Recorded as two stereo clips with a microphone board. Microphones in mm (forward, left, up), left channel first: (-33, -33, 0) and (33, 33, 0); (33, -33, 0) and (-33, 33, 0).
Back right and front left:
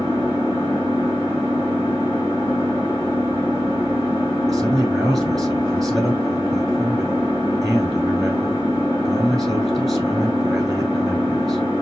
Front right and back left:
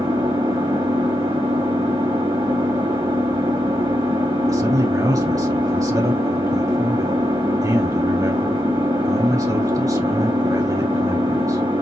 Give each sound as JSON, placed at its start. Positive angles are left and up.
{"t": 0.0, "sound": "an engine running", "azimuth_deg": 160, "distance_m": 2.0}
{"t": 4.5, "sound": "a man speaking", "azimuth_deg": 135, "distance_m": 1.5}